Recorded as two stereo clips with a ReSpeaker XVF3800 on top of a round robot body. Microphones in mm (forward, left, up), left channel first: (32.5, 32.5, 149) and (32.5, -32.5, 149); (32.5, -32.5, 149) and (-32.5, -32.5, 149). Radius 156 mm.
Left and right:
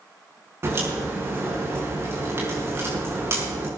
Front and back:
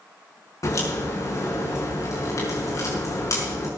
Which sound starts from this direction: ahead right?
A crack, at 0.6 s.